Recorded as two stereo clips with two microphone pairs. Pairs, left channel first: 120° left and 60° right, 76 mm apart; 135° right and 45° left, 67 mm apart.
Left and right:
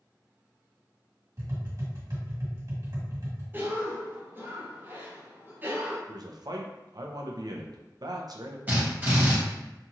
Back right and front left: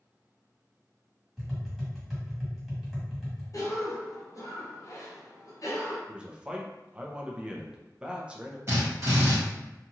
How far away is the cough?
About 0.8 m.